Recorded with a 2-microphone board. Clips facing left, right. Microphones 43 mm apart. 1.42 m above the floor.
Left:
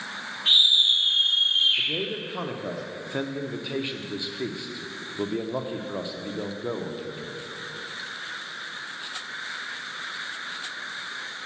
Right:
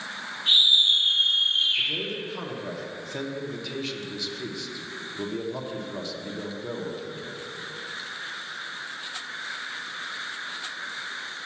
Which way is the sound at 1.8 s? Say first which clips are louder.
Even; 20° left (ahead or behind).